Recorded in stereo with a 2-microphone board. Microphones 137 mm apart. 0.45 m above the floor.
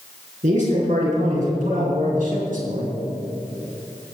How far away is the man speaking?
About 5 m.